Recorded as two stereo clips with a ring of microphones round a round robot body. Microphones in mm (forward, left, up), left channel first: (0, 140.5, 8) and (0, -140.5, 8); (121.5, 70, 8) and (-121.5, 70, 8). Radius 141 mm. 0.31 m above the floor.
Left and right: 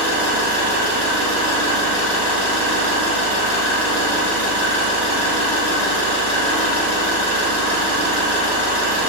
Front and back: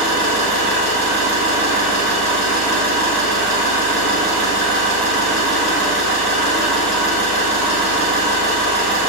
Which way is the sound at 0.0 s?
10° right.